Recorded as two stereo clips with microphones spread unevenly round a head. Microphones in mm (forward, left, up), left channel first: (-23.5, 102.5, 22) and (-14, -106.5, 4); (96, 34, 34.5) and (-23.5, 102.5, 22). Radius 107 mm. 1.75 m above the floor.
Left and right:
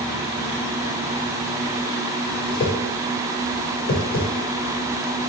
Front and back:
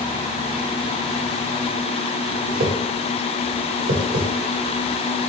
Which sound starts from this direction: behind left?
A whoosh, at 2.5 s.